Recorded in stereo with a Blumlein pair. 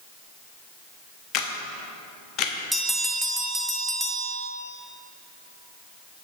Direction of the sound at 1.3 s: 35° left.